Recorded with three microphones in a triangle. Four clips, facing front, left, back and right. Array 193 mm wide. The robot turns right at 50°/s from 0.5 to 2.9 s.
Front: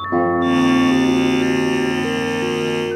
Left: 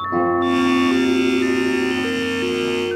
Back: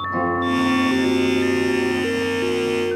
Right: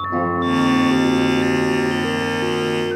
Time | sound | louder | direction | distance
0.1 | a guitar | left 2 dB, front 5 dB | straight ahead | 3.5 m